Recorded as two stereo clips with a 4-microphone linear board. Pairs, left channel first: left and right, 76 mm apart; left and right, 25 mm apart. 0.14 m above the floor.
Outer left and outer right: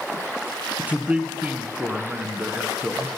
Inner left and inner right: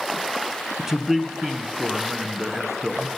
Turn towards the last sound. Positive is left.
turn(degrees=-20)  # may be behind; listen again after turning